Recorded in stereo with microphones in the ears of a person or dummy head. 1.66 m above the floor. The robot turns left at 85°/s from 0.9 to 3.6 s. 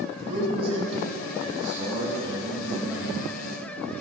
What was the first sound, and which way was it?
A man speaking, 40° right.